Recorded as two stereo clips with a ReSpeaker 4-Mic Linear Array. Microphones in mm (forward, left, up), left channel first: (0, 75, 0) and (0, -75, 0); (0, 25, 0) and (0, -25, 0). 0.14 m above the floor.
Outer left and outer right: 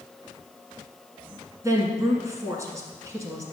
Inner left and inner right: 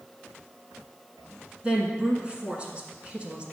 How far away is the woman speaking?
About 1.4 m.